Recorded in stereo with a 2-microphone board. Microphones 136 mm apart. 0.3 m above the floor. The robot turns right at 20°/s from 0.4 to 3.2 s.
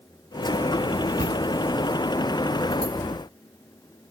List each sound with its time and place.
1.2 s a cupboard door: 65° right (ahead or behind), 0.8 m; by 1.4 s 60° right (ahead or behind), 0.8 m